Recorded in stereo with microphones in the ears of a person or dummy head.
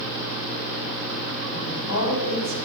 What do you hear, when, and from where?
1.5 s a woman speaking: 80° left, 6 m; by 2.6 s 65° left (ahead or behind), 5.5 m